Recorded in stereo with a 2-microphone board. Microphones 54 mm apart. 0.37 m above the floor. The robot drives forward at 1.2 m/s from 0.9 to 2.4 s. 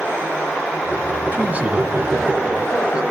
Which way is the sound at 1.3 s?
35° right (ahead or behind).